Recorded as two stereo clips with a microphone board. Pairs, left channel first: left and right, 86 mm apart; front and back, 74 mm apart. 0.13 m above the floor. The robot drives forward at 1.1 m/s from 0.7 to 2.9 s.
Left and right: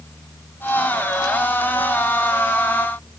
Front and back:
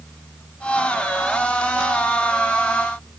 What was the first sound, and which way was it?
Only background noise.